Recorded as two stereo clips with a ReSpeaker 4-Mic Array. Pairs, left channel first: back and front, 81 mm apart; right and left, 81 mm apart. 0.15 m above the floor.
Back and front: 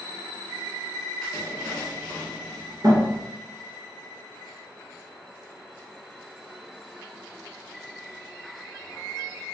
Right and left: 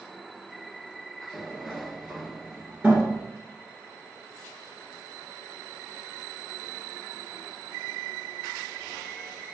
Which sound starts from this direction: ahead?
A sliding door, at 1.3 s.